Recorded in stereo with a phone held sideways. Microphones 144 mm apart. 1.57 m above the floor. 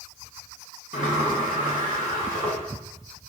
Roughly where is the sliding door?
Left.